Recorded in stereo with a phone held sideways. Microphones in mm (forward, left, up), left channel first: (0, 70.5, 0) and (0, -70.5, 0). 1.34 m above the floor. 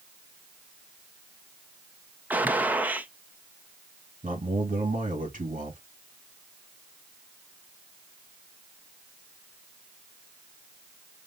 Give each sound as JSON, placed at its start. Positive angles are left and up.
{"t": 2.3, "sound": "a gunshot", "side_deg": -10, "distance_m": 0.6}
{"t": 4.2, "sound": "a man speaking", "side_deg": -70, "distance_m": 2.0}